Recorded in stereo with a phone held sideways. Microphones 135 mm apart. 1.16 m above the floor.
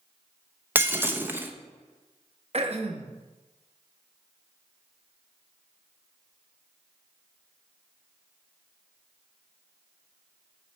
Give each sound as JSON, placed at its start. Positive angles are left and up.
{"t": 0.8, "sound": "breaking glass", "side_deg": -15, "distance_m": 0.6}
{"t": 2.5, "sound": "throat clearing", "side_deg": -50, "distance_m": 0.7}